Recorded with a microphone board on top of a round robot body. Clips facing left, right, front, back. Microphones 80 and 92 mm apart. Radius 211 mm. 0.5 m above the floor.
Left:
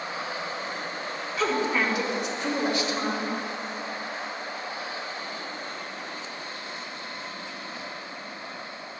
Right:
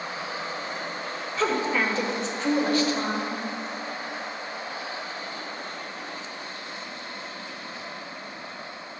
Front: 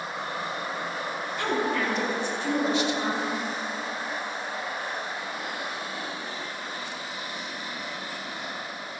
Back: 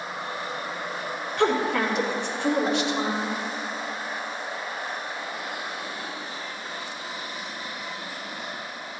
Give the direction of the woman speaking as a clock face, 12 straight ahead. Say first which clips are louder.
Right 1 dB, back 5 dB; 6 o'clock.